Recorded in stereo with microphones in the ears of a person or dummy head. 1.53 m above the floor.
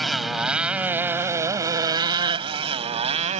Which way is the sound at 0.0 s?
Centre (ahead or behind).